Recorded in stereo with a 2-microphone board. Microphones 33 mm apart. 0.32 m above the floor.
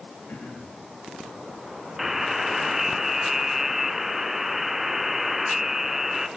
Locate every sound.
0.3 s throat clearing: 75° left (ahead or behind), 7.5 m
2.0 s a buzzer: 10° right (ahead or behind), 1.1 m